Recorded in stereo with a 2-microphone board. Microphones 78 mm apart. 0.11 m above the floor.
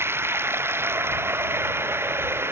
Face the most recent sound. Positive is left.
turn(degrees=-30)  # may be behind; listen again after turning